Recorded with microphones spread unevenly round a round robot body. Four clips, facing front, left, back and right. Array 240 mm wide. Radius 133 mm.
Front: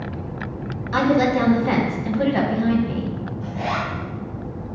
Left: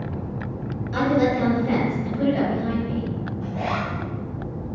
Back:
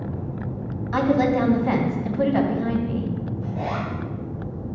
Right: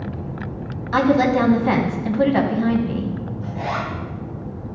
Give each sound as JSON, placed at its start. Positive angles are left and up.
{"t": 0.9, "sound": "a woman speaking", "azimuth_deg": -80, "distance_m": 2.5}
{"t": 3.4, "sound": "a zipper", "azimuth_deg": 145, "distance_m": 3.5}